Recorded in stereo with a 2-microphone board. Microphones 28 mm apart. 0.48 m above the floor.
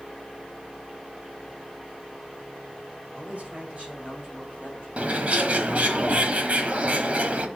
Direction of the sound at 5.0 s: 55° right (ahead or behind).